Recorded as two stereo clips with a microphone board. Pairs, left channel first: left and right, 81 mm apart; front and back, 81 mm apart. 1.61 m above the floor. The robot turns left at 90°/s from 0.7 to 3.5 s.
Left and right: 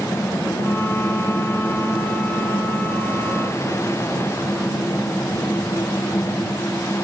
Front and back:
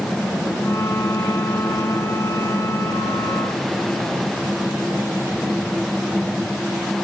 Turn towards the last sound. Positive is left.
No sound to turn to.